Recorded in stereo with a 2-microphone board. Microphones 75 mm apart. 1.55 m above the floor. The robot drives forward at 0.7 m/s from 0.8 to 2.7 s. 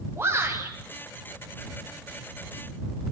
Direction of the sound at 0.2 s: 30° right (ahead or behind).